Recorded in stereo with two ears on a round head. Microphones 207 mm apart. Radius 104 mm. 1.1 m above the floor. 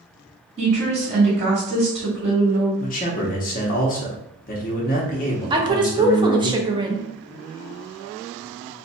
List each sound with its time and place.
0.6 s a woman speaking: 30° right (ahead or behind), 1.7 m
2.8 s a man speaking: 35° left (ahead or behind), 0.8 m
5.5 s a woman speaking: 20° right (ahead or behind), 0.7 m